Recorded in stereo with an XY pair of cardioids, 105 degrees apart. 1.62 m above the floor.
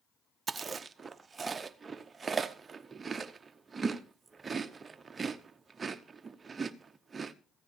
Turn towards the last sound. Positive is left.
turn(degrees=-30)